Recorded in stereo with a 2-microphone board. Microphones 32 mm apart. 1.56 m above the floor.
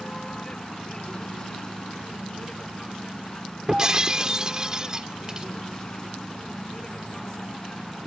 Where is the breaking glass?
25° right (ahead or behind).